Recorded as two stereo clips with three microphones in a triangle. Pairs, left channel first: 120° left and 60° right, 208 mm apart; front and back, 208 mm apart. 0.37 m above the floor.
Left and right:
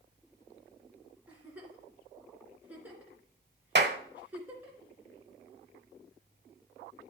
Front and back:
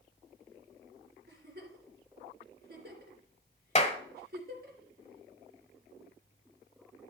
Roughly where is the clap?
Ahead right.